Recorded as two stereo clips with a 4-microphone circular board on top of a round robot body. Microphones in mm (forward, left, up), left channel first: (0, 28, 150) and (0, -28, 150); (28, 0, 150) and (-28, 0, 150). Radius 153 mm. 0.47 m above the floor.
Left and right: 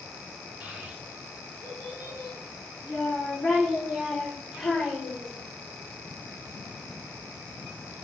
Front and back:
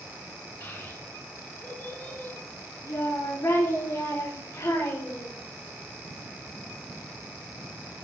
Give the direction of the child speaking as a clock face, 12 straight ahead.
1 o'clock.